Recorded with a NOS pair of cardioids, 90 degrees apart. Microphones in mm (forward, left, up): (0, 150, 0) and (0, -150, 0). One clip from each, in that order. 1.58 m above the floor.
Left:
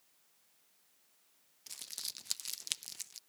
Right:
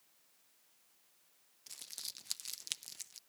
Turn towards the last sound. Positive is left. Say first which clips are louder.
# left 3 dB
turn(degrees=15)